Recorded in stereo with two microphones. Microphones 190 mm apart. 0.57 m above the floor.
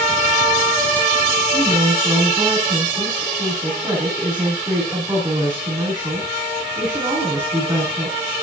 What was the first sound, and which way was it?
A woman speaking, 20° right (ahead or behind).